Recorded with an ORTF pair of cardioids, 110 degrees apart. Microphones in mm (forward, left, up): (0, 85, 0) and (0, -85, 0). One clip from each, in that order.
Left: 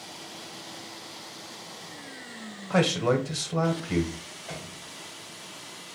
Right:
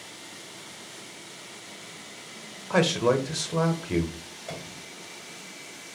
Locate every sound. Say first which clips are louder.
2.7 s a man speaking: right 1 dB; 10° right, 0.6 m
4.5 s a piano: right 2 dB; 40° right, 1.5 m